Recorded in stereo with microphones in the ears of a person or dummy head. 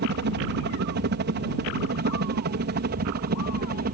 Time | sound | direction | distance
0.0 | a helicopter | 55° right (ahead or behind) | ?